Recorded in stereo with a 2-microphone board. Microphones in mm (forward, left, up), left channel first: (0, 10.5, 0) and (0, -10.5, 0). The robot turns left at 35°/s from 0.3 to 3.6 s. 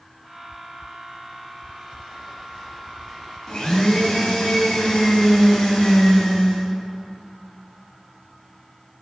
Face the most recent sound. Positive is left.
turn(degrees=25)  # may be behind; listen again after turning